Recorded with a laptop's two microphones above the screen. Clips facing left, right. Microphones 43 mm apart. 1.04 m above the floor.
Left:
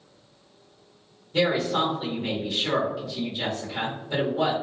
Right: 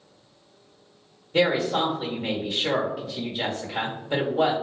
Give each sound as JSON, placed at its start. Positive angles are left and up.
{"t": 1.3, "sound": "a woman speaking", "side_deg": -20, "distance_m": 1.0}